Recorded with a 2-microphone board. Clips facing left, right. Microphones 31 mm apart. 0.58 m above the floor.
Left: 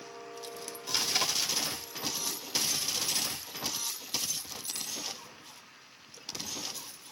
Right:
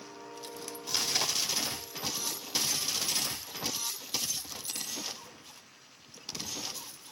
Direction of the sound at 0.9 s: 10° left (ahead or behind).